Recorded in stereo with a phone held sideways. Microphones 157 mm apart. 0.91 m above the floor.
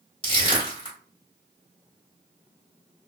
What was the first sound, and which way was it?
Crushing, 30° left (ahead or behind).